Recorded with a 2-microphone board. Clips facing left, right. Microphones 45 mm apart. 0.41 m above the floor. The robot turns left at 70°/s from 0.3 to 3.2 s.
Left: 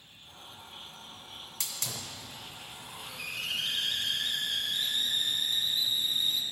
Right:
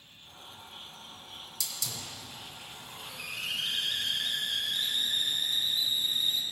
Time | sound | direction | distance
1.6 | a hiss | 105° left | 1.3 m